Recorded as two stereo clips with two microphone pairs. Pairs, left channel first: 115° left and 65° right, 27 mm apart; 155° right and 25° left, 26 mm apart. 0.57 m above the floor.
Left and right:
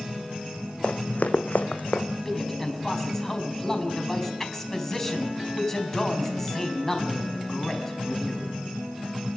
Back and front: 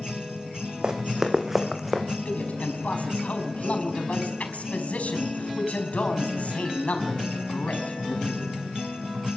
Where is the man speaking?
170° right, 4.5 m.